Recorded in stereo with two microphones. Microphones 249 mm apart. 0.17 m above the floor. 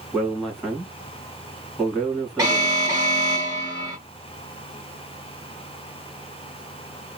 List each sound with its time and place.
0.1 s a man speaking: centre (ahead or behind), 1.9 m
2.4 s an alarm: 15° right (ahead or behind), 2 m